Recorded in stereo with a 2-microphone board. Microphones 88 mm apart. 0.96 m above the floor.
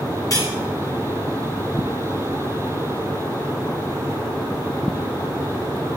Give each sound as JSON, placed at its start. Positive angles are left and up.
{"t": 0.3, "sound": "cutlery clinking", "side_deg": 40, "distance_m": 5.5}